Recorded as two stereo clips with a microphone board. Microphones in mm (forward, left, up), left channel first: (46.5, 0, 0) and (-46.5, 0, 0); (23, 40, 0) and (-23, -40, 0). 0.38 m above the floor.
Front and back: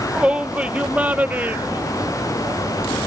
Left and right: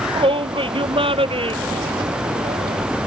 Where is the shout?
100° right; by 2.8 s 115° right.